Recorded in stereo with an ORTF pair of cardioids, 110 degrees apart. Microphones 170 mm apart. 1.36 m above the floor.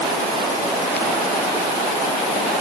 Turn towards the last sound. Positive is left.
No sound to turn to.